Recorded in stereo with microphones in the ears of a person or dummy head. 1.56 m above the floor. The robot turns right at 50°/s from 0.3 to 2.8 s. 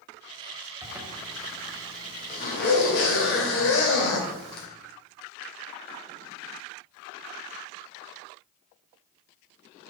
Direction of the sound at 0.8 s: 20° right (ahead or behind).